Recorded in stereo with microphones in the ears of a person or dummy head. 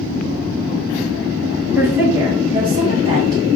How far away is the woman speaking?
About 1.2 m.